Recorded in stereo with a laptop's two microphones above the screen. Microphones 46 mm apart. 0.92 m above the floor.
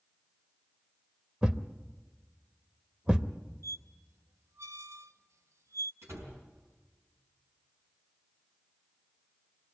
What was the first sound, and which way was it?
A thud, 15° right (ahead or behind).